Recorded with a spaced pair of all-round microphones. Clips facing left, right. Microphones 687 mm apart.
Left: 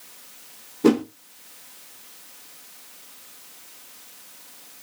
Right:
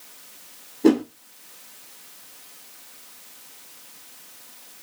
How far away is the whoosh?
About 0.6 m.